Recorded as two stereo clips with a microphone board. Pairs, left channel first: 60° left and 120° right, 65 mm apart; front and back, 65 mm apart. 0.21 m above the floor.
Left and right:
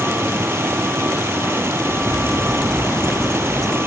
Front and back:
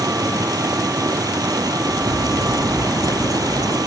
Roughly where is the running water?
Behind.